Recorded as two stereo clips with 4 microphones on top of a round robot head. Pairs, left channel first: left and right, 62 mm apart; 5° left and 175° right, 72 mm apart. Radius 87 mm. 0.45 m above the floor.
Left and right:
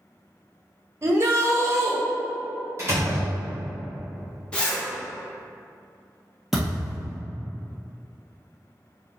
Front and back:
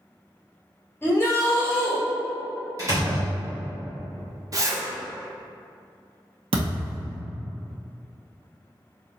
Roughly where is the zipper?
Behind.